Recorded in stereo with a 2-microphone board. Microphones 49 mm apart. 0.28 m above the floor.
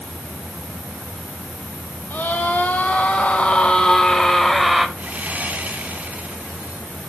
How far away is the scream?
About 1.6 m.